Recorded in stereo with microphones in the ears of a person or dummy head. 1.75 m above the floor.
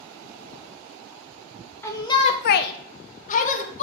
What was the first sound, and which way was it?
A shout, 10° left (ahead or behind).